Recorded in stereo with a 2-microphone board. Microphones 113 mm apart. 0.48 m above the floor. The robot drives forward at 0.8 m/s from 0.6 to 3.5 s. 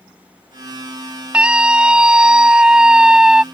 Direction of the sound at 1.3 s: 10° right (ahead or behind).